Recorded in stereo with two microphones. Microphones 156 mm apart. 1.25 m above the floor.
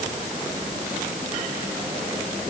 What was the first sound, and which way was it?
Only background noise.